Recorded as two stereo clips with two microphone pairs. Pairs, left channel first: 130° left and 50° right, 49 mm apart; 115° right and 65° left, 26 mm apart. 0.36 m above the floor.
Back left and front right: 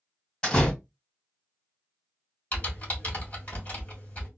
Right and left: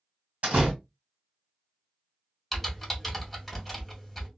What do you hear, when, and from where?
0.4 s a door slam: 65° left, 1.8 m
2.5 s typing on a keyboard: 155° left, 1.5 m